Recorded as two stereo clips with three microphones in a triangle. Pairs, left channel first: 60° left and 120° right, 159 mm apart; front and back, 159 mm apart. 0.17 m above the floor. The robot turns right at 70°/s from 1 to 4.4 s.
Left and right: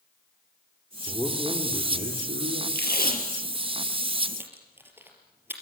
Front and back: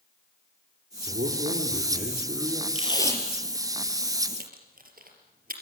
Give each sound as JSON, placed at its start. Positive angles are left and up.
{"t": 1.1, "sound": "a man speaking", "azimuth_deg": 145, "distance_m": 6.0}
{"t": 2.8, "sound": "tape being pulled", "azimuth_deg": 50, "distance_m": 4.0}